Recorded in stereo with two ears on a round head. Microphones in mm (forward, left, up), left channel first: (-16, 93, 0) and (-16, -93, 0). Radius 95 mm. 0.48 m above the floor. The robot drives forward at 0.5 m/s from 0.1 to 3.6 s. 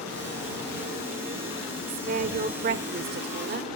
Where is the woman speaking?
40° right (ahead or behind), 1.5 m; by 3.7 s 50° right (ahead or behind), 1.2 m.